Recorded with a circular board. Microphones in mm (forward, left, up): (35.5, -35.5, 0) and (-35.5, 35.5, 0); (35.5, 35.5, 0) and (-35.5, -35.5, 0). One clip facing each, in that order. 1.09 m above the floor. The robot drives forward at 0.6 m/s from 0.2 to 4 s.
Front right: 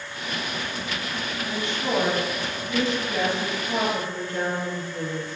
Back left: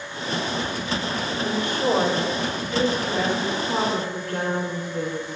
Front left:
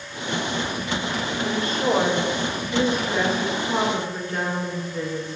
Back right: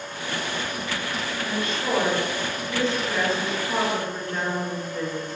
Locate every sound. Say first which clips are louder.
1.4 s a woman speaking: back left 6 dB, front left 5 dB; 100° left, 2.5 m; by 5.4 s 125° left, 3.5 m